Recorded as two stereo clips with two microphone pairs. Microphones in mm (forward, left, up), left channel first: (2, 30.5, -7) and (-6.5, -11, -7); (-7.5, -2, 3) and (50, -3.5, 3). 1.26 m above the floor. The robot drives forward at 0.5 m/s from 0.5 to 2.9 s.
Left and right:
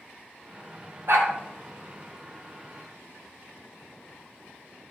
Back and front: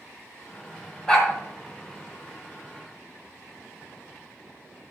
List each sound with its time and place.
1.1 s a dog barking: 105° right, 3 m